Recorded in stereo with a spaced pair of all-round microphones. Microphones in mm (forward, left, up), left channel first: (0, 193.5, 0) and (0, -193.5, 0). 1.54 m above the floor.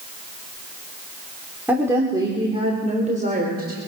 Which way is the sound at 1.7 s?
5° right (ahead or behind).